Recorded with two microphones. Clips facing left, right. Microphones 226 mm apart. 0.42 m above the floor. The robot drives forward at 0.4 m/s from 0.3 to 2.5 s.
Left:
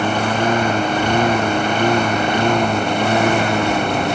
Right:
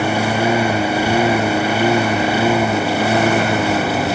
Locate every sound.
0.0 s a lawn mower: 10° right (ahead or behind); by 4.2 s 5° right (ahead or behind)